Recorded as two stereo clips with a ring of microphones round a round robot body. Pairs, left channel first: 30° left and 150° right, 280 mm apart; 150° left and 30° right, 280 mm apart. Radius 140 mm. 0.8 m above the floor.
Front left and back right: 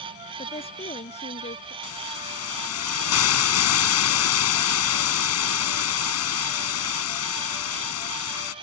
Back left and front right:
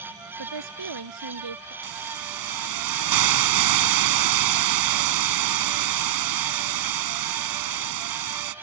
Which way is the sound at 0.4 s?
40° right.